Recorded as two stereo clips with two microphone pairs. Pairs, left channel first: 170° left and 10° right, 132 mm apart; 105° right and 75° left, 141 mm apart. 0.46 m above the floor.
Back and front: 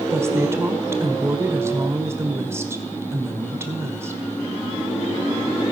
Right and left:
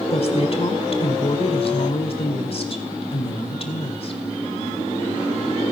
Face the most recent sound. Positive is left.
turn(degrees=-75)